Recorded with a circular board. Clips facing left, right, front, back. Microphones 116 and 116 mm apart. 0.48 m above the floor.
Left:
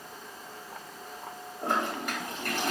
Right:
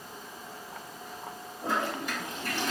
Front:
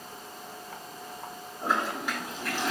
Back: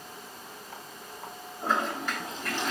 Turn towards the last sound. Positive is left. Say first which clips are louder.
# left 1 dB, even
turn(degrees=80)